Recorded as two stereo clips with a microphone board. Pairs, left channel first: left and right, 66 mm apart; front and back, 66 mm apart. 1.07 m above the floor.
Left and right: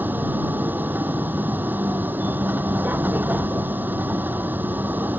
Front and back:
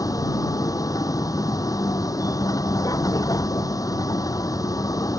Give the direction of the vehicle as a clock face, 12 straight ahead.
1 o'clock.